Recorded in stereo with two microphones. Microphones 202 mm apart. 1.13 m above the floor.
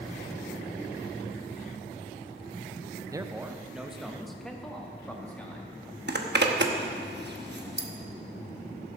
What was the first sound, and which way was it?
A man speaking, 15° right (ahead or behind).